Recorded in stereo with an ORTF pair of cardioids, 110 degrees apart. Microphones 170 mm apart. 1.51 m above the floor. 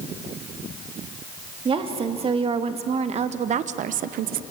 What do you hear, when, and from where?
1.6 s a woman speaking: 35° right, 2.5 m; by 4.4 s 80° right, 0.5 m